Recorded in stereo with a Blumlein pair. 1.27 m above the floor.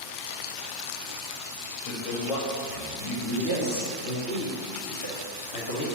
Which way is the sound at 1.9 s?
40° left.